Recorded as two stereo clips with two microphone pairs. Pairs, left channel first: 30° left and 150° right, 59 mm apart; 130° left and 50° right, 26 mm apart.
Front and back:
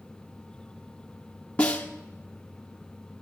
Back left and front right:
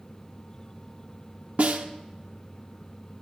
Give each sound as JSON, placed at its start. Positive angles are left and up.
{"t": 1.6, "sound": "a snare drum", "azimuth_deg": -35, "distance_m": 1.2}